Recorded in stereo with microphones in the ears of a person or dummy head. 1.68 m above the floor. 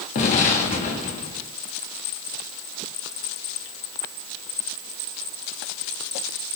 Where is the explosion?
40° left (ahead or behind), 1.4 m.